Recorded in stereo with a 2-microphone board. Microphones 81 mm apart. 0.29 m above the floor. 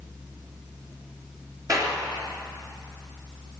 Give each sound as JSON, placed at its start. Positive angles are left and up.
{"t": 1.7, "sound": "a clap", "side_deg": -40, "distance_m": 3.5}